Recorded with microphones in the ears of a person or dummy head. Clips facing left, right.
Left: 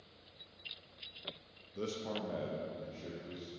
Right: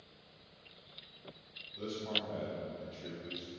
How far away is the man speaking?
About 0.8 m.